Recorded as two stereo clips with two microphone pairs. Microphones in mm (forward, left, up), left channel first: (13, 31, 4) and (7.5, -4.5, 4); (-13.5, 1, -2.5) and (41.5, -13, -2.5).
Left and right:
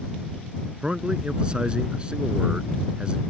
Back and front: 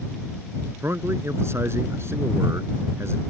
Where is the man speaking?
40° right.